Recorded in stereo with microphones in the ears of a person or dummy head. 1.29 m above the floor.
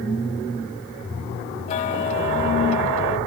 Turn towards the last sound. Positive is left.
turn(degrees=35)  # may be behind; listen again after turning